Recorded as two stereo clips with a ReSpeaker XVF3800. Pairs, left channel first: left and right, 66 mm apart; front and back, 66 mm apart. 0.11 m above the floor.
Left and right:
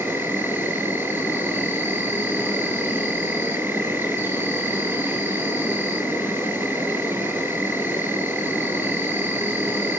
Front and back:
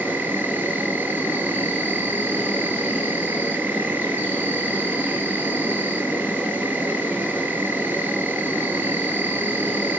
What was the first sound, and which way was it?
An insect, 125° right.